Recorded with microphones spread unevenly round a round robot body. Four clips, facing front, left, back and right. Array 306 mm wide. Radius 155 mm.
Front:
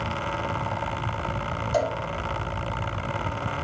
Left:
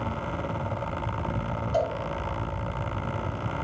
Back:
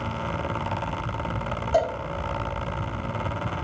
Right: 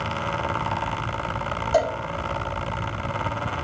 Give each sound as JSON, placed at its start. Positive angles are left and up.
{"t": 1.7, "sound": "a cowbell", "azimuth_deg": -150, "distance_m": 1.6}